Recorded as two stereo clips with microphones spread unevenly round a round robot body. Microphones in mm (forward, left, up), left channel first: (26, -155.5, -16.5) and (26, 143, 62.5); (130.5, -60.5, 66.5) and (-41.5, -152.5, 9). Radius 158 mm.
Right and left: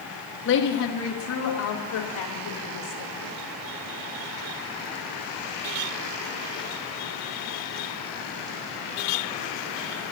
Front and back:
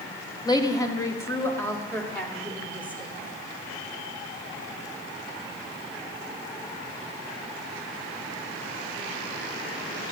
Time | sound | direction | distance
0.5 | a woman speaking | 50° right | 1.4 m